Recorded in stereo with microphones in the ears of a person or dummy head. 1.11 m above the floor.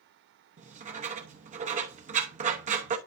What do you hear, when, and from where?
0.6 s writing: 40° right (ahead or behind), 0.9 m